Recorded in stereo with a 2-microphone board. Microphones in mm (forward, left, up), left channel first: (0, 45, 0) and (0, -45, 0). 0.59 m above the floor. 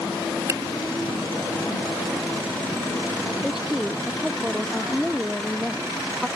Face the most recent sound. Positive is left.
turn(degrees=-5)  # may be behind; listen again after turning